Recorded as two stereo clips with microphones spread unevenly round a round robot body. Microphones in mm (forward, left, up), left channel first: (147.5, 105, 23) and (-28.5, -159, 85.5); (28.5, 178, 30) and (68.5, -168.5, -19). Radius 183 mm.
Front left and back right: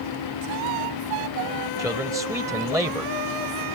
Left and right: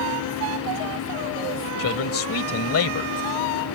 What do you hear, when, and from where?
1.8 s a man speaking: 155° left